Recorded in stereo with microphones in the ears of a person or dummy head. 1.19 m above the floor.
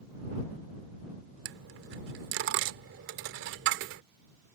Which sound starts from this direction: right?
A dropped coin, at 1.4 s.